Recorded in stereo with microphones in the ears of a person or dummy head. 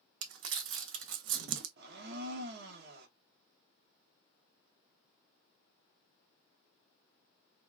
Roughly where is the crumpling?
Right.